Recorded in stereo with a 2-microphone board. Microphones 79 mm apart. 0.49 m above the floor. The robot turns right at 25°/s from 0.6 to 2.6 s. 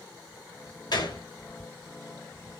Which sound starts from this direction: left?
A gunshot, at 0.9 s.